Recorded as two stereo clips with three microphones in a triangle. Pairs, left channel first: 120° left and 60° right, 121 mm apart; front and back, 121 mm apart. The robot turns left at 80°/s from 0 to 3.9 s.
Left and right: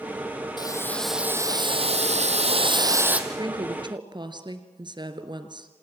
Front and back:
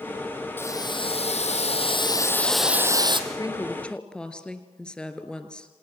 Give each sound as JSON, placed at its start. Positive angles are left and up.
{"t": 0.6, "sound": "boiling", "azimuth_deg": 70, "distance_m": 1.9}
{"t": 3.3, "sound": "a woman speaking", "azimuth_deg": -30, "distance_m": 1.9}